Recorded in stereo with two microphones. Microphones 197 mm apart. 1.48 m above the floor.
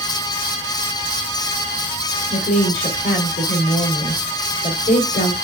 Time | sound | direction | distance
2.3 | a woman speaking | 75° left (ahead or behind) | 1.8 m